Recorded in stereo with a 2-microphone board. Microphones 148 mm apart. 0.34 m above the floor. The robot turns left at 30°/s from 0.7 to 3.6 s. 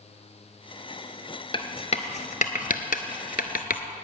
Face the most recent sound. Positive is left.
turn(degrees=80)